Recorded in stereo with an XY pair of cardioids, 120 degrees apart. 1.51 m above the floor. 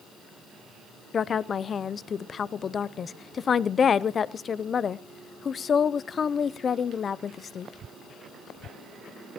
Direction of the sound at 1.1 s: 35° left.